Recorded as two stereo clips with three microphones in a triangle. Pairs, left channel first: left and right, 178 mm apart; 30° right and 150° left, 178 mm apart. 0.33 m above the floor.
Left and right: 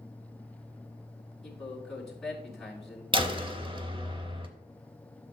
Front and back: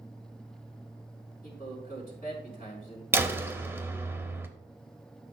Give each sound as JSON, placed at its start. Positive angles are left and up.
{"t": 1.4, "sound": "a man speaking", "azimuth_deg": 0, "distance_m": 4.0}
{"t": 3.1, "sound": "a door slam", "azimuth_deg": -140, "distance_m": 0.8}